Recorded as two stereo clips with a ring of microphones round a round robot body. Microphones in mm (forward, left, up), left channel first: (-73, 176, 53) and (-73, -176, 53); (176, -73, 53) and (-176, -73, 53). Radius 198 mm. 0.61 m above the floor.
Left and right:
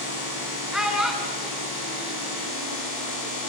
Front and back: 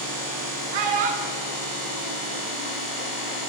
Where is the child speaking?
Straight behind, 6.5 m.